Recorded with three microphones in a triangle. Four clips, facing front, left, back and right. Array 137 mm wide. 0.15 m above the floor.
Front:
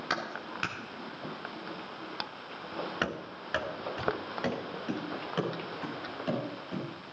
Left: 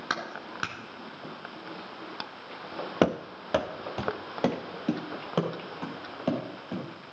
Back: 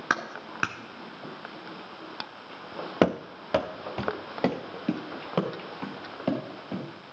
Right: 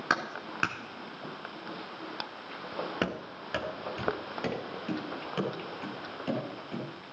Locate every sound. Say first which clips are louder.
0.1 s a clap: right 3 dB, back 5 dB; 160° right, 1.5 m
3.0 s running footsteps: left 8 dB, back 11 dB; 145° left, 0.7 m; by 6.9 s 140° left, 4.5 m